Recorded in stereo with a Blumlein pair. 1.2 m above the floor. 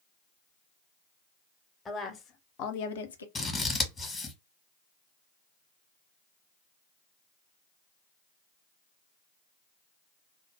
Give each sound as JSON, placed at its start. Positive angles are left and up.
{"t": 1.9, "sound": "a woman speaking", "azimuth_deg": 15, "distance_m": 0.8}
{"t": 3.4, "sound": "scissors", "azimuth_deg": 15, "distance_m": 1.0}